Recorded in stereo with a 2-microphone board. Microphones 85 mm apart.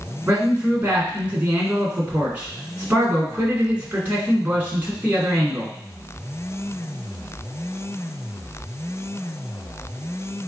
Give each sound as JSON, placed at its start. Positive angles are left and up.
{"t": 0.3, "sound": "a man speaking", "side_deg": -15, "distance_m": 1.7}